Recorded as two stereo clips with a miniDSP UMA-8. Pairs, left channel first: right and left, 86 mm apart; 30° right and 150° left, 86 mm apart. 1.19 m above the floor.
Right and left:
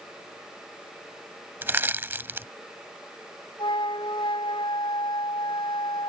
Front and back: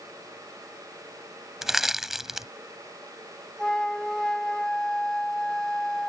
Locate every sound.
1.6 s crushing: 70° left
3.6 s a flute: 115° right